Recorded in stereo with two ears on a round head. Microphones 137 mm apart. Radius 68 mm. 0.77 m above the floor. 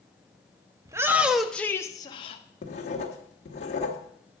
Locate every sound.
0.8 s a shout: 20° right (ahead or behind), 0.9 m; by 2.4 s 40° left (ahead or behind), 0.9 m
2.6 s writing: 45° left (ahead or behind), 1.3 m